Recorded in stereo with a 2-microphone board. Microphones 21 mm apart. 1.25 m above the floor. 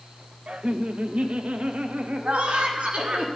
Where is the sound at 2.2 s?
80° right, 3.5 m.